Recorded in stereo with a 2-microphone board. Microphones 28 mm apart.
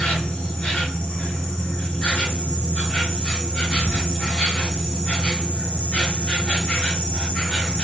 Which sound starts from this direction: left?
An insect, at 0.0 s.